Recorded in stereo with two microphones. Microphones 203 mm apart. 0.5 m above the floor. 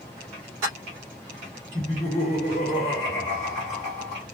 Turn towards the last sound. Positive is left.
turn(degrees=20)  # may be behind; listen again after turning